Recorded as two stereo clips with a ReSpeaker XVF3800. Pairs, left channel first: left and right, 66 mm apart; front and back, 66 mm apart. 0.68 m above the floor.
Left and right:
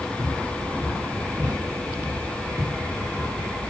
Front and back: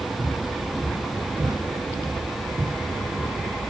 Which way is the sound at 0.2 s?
140° right.